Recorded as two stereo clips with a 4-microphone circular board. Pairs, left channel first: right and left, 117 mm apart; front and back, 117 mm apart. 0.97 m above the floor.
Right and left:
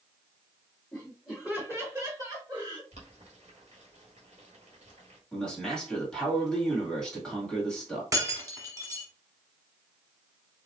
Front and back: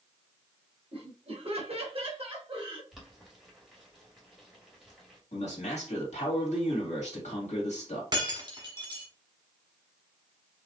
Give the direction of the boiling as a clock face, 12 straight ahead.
9 o'clock.